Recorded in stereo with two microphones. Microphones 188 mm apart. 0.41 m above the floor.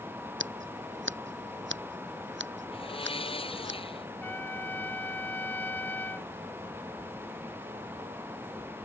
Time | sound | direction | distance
0.4 | scissors | 85° right | ?
2.7 | a blender | 30° left (ahead or behind) | ?
4.2 | a trumpet | 10° left (ahead or behind) | ?